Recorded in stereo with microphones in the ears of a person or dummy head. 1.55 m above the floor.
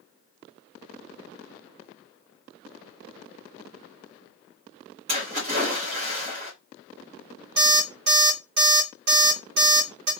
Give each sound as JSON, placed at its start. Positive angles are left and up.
{"t": 5.1, "sound": "a splash", "side_deg": -30, "distance_m": 1.6}
{"t": 7.6, "sound": "an alarm clock", "side_deg": -45, "distance_m": 1.8}